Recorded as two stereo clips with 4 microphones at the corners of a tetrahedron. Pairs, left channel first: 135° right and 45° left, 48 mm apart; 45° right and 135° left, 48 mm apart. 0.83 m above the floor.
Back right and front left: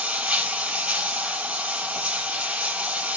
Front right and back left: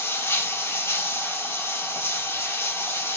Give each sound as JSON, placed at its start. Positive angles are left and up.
{"t": 0.0, "sound": "running water", "azimuth_deg": -20, "distance_m": 3.0}